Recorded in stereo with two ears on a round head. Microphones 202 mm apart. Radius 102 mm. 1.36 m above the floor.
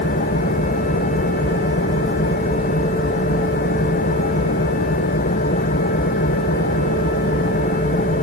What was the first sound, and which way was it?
An engine running, 35° left (ahead or behind).